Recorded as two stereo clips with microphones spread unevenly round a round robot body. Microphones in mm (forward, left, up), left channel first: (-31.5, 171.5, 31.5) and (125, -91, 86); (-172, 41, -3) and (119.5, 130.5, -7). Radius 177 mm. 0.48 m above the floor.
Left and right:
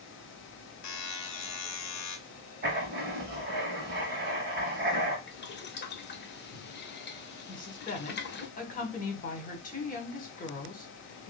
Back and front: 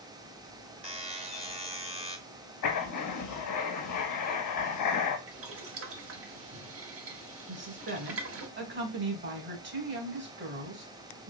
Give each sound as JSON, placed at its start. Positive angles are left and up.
{"t": 0.8, "sound": "a buzzer", "azimuth_deg": 90, "distance_m": 0.8}
{"t": 2.6, "sound": "writing", "azimuth_deg": -120, "distance_m": 0.6}
{"t": 5.3, "sound": "boiling", "azimuth_deg": 65, "distance_m": 0.8}
{"t": 7.5, "sound": "a woman speaking", "azimuth_deg": 65, "distance_m": 1.5}